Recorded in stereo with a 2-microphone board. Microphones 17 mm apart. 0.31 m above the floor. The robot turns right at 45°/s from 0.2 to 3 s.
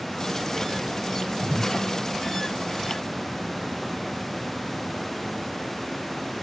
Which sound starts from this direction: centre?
A whoosh, at 1.4 s.